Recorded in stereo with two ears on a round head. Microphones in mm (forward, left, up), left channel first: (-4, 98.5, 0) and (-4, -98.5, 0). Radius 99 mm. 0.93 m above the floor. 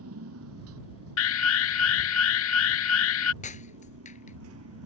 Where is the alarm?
65° left (ahead or behind).